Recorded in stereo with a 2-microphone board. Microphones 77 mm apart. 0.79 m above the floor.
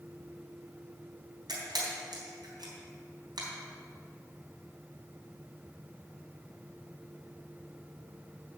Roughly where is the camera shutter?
Right.